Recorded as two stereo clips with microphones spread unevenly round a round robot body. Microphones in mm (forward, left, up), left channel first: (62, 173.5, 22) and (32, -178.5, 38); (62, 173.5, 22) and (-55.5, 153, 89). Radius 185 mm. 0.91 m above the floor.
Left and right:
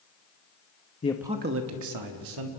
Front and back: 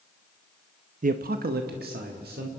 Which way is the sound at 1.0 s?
155° left.